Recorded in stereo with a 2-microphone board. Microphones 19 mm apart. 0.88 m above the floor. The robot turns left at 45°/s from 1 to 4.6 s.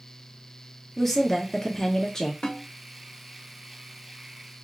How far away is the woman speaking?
About 0.8 m.